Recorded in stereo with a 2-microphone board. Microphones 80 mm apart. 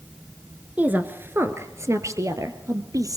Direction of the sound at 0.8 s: 20° right (ahead or behind).